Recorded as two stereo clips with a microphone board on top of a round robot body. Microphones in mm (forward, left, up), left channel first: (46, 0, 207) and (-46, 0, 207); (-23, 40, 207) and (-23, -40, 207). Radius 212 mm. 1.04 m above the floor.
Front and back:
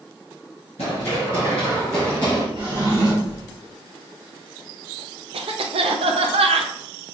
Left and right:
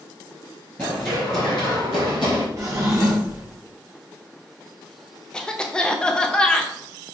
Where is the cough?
170° left, 0.5 m.